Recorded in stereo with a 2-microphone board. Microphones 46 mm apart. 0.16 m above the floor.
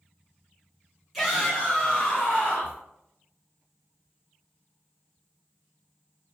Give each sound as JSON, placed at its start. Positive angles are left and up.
{"t": 1.1, "sound": "a shout", "side_deg": 0, "distance_m": 1.5}